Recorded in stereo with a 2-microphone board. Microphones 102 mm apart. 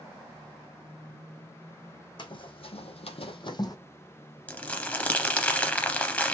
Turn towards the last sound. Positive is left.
turn(degrees=15)  # may be behind; listen again after turning